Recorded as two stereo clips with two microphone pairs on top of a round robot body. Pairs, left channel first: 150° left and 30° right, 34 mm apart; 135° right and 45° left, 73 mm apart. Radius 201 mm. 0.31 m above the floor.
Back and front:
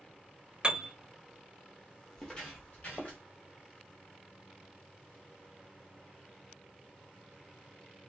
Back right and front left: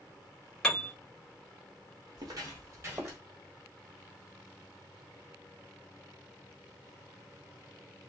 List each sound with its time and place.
0.6 s a piano: 60° right, 1.1 m
2.2 s footsteps: 75° left, 0.8 m; by 3.2 s 110° left, 1.2 m